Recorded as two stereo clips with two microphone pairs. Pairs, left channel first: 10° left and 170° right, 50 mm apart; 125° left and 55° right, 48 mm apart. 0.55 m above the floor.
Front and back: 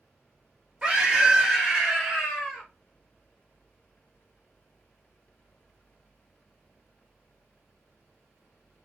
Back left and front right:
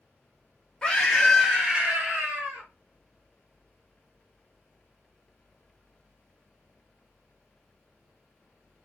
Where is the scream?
175° left, 1.2 m; by 2.7 s 90° right, 1.6 m.